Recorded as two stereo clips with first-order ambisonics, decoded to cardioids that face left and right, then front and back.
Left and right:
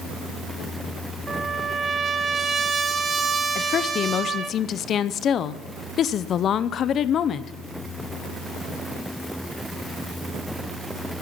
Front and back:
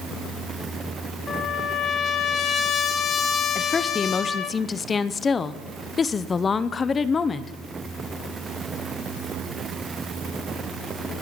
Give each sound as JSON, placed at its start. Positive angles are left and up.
{"t": 1.3, "sound": "a trumpet", "azimuth_deg": -30, "distance_m": 1.3}
{"t": 3.5, "sound": "a woman speaking", "azimuth_deg": 55, "distance_m": 0.6}